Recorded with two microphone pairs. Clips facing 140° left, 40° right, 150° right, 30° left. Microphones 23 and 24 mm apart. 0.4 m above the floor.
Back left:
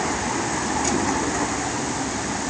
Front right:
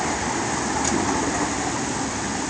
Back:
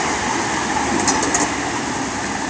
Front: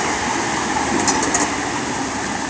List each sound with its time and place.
Only background noise.